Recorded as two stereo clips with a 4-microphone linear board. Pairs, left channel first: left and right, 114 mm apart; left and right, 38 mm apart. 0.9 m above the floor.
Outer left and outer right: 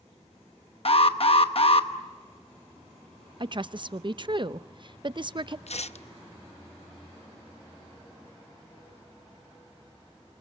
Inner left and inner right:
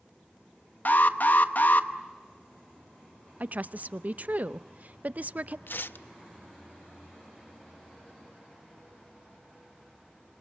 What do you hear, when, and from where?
0.8 s an alarm: 55° left (ahead or behind), 1.0 m
3.4 s a woman speaking: 45° right (ahead or behind), 0.6 m
5.7 s tearing paper: 70° left (ahead or behind), 0.5 m